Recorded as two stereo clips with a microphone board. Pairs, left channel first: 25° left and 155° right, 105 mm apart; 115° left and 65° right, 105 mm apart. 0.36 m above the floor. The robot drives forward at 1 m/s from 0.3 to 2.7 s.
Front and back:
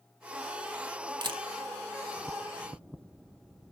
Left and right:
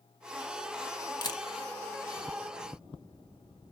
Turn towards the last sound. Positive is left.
turn(degrees=170)